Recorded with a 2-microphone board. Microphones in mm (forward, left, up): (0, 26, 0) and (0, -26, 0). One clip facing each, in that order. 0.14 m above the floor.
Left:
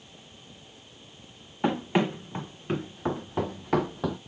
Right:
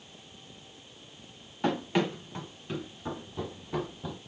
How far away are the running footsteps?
About 2.5 m.